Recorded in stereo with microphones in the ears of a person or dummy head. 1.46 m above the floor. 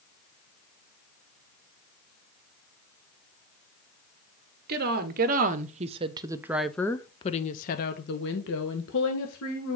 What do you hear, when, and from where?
4.7 s a woman speaking: 60° right (ahead or behind), 1.4 m; by 9.8 s 75° left (ahead or behind), 1.8 m